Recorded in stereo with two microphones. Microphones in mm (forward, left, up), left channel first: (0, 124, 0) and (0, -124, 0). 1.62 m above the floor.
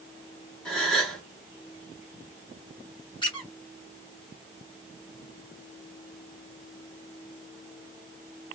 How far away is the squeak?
About 2.0 m.